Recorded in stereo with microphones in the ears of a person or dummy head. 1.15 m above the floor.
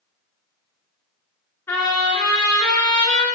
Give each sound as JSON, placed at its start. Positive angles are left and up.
{"t": 1.7, "sound": "a trumpet", "side_deg": 15, "distance_m": 2.5}